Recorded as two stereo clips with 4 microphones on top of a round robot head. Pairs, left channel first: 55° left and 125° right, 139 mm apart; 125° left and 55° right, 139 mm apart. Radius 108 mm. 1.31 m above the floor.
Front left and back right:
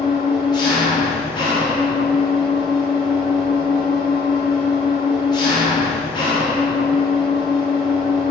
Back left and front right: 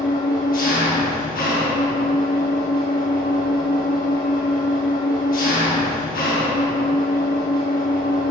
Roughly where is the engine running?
Left.